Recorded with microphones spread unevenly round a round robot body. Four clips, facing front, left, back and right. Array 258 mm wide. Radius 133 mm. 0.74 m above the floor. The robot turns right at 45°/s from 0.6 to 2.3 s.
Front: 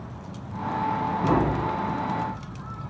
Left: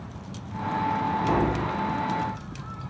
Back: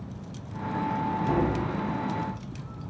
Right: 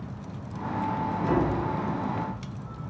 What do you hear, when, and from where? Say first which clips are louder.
1.2 s tapping: right 1 dB, front 4 dB; 10° right, 3 m; by 1.7 s 10° left, 3 m